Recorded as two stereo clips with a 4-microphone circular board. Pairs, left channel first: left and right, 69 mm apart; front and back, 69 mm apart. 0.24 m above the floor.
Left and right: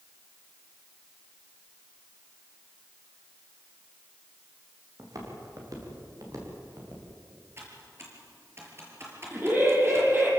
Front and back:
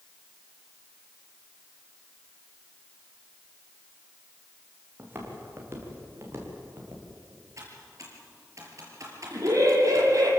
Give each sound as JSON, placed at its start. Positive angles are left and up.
{"t": 5.0, "sound": "footsteps", "azimuth_deg": -125, "distance_m": 6.5}
{"t": 7.6, "sound": "typing on a keyboard", "azimuth_deg": -140, "distance_m": 5.5}
{"t": 9.3, "sound": "laughter", "azimuth_deg": -150, "distance_m": 6.5}